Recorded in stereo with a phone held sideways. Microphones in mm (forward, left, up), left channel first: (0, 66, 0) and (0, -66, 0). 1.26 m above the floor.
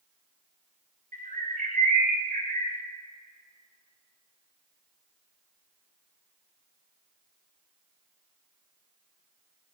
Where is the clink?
No clink in this recording.